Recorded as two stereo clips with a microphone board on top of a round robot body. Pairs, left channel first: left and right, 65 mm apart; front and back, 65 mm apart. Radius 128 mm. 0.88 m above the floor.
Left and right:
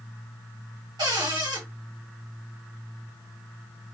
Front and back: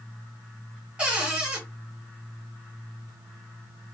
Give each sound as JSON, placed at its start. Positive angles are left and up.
{"t": 1.0, "sound": "a cupboard door", "azimuth_deg": -110, "distance_m": 1.5}